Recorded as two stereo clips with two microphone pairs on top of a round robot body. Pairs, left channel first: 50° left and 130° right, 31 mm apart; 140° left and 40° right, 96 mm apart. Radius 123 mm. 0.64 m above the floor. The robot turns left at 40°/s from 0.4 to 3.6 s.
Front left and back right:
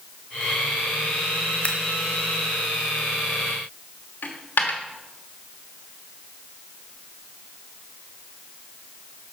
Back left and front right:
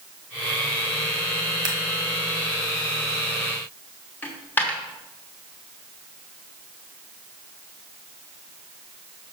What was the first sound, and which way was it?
Scissors, 10° left.